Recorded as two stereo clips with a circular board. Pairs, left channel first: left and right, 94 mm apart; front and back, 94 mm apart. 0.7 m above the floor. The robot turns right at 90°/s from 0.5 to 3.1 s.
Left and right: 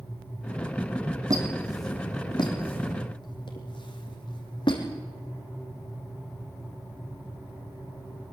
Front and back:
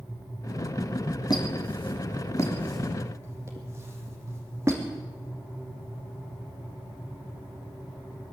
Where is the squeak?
45° right, 3.5 m; by 4.8 s 120° left, 3.5 m.